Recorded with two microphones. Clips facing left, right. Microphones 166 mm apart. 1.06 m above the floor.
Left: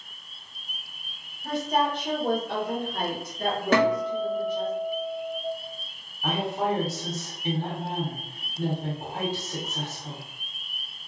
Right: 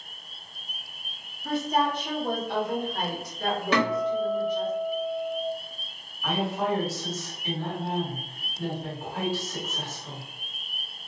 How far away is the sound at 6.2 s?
About 1.6 m.